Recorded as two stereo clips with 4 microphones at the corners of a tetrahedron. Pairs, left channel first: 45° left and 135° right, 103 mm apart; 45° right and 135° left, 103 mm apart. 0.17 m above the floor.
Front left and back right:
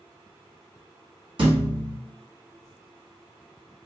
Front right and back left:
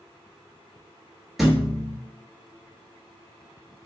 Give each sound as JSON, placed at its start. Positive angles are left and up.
{"t": 1.4, "sound": "a thud", "azimuth_deg": -135, "distance_m": 1.1}